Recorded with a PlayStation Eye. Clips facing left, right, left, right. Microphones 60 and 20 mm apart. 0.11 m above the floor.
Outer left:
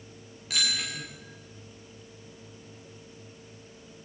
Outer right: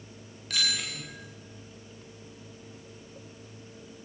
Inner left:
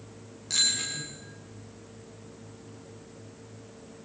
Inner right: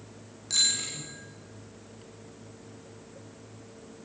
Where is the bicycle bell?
Centre (ahead or behind), 9 m.